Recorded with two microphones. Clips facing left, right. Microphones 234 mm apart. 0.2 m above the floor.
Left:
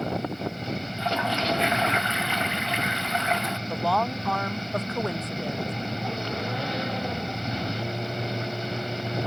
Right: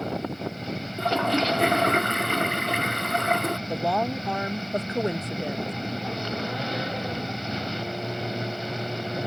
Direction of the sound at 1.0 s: 55° right (ahead or behind).